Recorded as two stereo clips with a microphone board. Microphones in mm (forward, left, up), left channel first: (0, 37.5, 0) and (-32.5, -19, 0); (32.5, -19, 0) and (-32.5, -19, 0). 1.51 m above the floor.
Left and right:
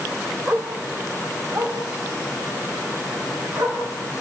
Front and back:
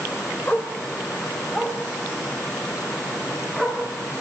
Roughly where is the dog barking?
Ahead right.